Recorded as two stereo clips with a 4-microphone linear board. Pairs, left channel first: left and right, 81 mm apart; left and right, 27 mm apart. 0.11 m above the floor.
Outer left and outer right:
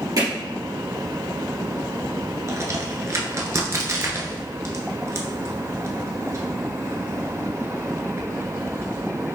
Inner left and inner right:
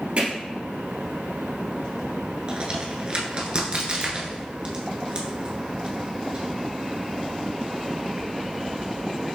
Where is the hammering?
50° right (ahead or behind), 1.9 m.